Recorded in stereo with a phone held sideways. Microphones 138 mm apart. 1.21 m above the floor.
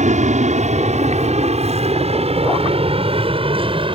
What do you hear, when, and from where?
0.0 s an aircraft: 65° right (ahead or behind); by 4.0 s 40° right (ahead or behind)